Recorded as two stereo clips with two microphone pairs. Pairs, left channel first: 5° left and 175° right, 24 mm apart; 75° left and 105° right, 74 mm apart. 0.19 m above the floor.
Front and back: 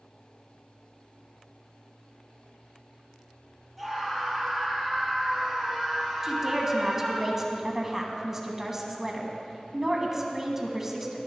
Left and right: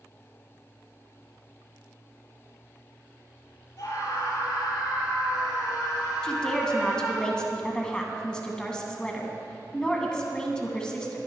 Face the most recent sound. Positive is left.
turn(degrees=135)